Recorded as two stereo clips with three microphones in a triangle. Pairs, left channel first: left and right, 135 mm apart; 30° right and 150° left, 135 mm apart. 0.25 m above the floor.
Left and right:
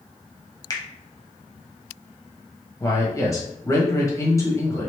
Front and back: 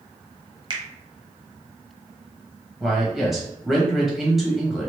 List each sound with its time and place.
0.7 s a finger snap: 130° left, 0.9 m
2.8 s a man speaking: 65° left, 1.3 m